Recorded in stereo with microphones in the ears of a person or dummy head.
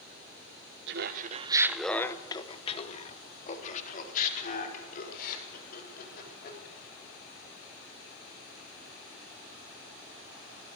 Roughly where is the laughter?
Right.